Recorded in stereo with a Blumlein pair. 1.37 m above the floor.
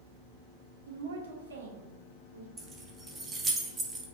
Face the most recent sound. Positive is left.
turn(degrees=-15)